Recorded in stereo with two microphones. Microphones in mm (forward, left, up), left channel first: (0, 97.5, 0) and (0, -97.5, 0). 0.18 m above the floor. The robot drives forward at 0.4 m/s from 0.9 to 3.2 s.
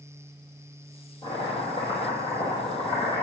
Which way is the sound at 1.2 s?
30° left (ahead or behind).